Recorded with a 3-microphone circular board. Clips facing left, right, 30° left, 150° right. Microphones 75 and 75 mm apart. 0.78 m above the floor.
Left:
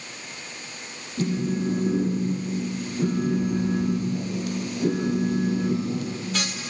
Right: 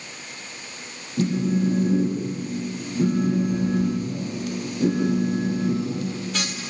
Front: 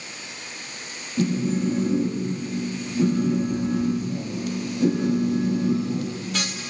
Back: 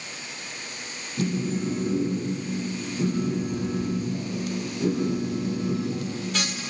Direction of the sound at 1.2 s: 40° right.